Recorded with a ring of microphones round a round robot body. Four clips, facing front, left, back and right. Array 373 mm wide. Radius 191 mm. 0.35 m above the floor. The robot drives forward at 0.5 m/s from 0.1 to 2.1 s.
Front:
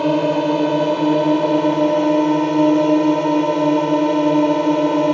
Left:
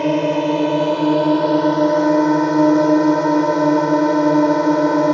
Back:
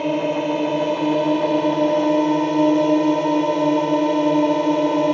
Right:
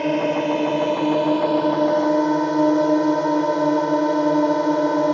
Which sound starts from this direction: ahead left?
A drone, at 0.0 s.